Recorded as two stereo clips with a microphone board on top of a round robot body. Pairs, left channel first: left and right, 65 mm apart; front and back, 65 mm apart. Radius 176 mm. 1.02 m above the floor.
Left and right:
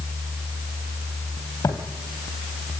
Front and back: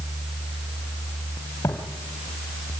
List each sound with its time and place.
1.6 s footsteps: 55° left, 2.5 m